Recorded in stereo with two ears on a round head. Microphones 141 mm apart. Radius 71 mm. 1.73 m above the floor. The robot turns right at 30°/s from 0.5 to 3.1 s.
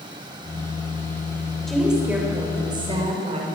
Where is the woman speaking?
175° left, 7 m; by 3.5 s 140° right, 7 m.